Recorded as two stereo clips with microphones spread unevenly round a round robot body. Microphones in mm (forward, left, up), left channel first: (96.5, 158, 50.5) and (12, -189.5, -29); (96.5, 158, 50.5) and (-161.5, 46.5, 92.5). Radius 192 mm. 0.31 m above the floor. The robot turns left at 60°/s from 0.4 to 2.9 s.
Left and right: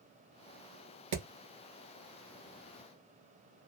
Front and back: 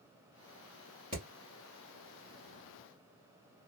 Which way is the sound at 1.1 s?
80° right.